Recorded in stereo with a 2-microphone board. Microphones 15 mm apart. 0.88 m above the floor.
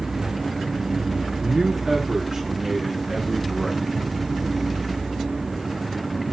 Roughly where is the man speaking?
Right.